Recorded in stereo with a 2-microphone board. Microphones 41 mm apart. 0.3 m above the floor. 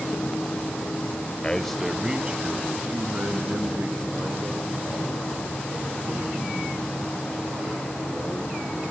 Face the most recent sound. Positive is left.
turn(degrees=-50)  # may be behind; listen again after turning